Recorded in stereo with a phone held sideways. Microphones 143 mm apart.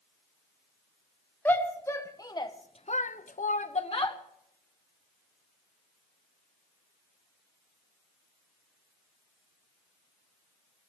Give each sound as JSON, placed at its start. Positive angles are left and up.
{"t": 1.4, "sound": "a shout", "side_deg": 15, "distance_m": 1.3}